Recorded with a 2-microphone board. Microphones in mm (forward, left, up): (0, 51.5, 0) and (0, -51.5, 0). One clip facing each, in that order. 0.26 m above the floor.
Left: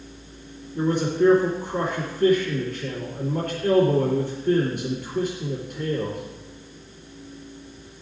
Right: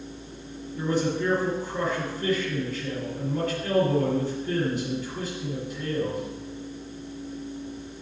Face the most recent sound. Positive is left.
turn(degrees=55)  # may be behind; listen again after turning